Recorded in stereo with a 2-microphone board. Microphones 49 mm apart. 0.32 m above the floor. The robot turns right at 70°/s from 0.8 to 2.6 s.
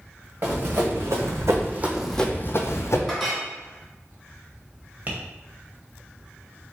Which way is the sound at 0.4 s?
40° right (ahead or behind).